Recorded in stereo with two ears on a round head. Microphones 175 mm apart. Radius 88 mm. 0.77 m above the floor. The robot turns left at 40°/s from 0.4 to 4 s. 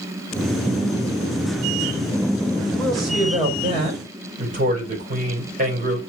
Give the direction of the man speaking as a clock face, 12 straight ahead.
12 o'clock.